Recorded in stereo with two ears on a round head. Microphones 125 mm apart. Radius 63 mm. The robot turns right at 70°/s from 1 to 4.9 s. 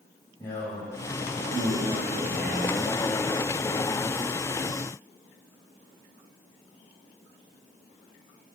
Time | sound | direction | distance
0.4 | a man speaking | 155° left | 2.5 m